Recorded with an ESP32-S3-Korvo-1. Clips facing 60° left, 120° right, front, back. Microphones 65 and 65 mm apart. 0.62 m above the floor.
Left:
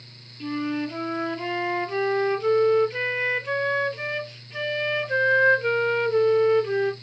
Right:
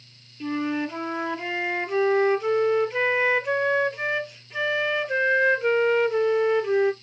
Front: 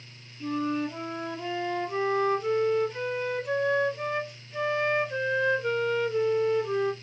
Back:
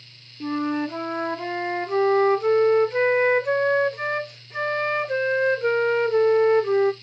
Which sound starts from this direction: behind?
A flute, at 0.4 s.